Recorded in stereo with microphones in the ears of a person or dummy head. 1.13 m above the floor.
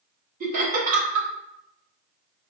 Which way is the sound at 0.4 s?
45° right (ahead or behind).